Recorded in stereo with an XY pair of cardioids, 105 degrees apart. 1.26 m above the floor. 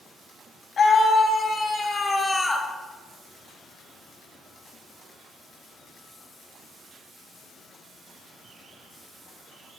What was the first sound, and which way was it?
A scream, 45° left.